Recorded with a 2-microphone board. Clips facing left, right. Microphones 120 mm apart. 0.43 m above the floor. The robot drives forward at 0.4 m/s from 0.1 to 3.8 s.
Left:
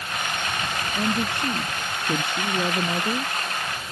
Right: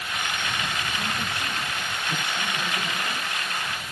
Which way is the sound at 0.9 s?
60° left (ahead or behind).